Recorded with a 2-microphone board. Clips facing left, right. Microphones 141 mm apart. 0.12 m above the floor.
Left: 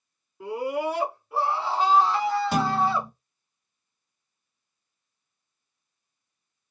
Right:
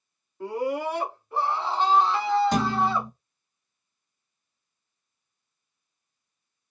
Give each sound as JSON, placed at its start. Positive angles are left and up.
{"t": 0.4, "sound": "a scream", "side_deg": 10, "distance_m": 1.6}
{"t": 2.5, "sound": "a thud", "side_deg": 5, "distance_m": 0.7}